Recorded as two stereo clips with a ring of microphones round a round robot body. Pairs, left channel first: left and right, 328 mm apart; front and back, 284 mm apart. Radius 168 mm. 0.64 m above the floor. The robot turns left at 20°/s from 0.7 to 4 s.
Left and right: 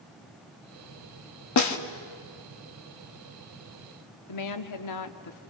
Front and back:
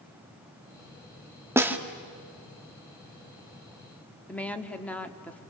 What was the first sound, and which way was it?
A snare drum, 100° left.